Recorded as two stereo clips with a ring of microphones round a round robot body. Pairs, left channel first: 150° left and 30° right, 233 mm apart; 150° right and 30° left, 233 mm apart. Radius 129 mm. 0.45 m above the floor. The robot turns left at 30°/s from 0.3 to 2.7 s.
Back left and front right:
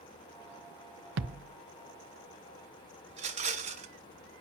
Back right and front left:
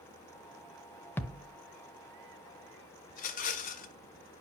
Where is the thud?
70° right, 0.6 m; by 1.6 s 80° right, 0.6 m.